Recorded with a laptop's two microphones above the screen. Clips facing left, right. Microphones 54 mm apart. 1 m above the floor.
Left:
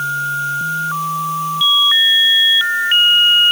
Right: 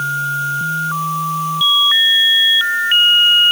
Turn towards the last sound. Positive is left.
No sound to turn to.